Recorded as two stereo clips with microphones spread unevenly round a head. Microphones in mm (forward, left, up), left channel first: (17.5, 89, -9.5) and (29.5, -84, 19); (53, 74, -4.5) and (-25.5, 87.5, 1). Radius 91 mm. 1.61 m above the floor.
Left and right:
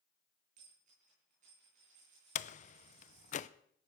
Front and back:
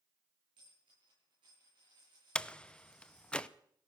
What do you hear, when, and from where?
0.6 s a dropped coin: 135° right, 9.5 m
2.4 s a door slam: 65° left, 0.6 m